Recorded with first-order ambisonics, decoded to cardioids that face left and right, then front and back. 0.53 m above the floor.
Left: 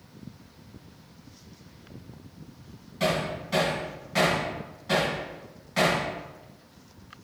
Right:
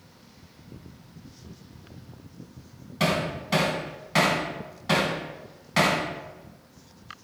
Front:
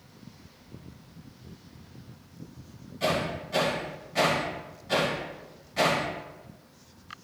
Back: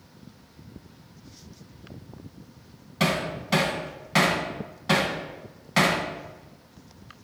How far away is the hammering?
About 2.0 m.